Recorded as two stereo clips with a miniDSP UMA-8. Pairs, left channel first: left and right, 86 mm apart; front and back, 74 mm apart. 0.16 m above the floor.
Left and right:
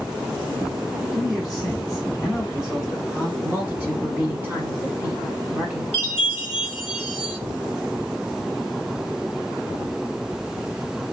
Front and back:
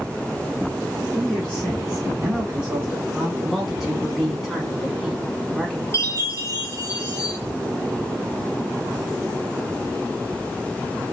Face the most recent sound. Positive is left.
turn(degrees=-25)